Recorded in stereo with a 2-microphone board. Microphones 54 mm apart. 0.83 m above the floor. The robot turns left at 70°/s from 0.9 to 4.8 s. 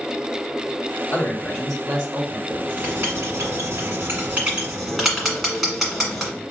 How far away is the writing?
About 1.6 m.